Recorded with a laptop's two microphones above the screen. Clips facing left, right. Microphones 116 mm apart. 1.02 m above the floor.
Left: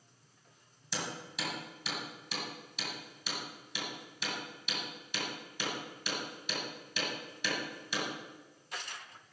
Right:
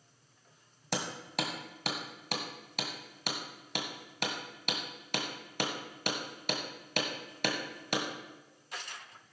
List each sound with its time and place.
0.9 s hammering: 65° right (ahead or behind), 1.8 m